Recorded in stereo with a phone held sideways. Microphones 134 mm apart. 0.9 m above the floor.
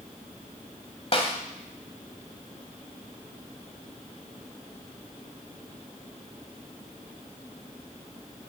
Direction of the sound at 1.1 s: 45° left (ahead or behind).